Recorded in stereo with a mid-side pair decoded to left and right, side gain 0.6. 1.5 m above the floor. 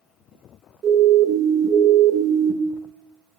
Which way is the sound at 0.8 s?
45° right.